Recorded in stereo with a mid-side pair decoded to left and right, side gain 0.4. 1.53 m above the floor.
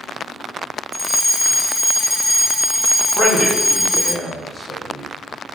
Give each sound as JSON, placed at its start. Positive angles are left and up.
{"t": 0.9, "sound": "a fire alarm", "azimuth_deg": 5, "distance_m": 2.0}
{"t": 3.1, "sound": "a man speaking", "azimuth_deg": -40, "distance_m": 5.5}